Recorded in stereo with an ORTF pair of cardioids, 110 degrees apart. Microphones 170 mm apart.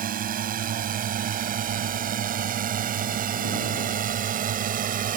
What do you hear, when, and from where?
0.0 s a drone: 55° right; by 5.2 s 50° right